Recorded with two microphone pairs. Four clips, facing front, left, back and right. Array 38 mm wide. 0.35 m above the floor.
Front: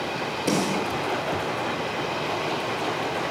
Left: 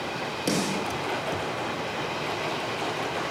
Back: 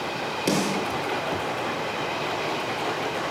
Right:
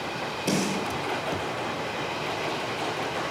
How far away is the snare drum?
About 3 m.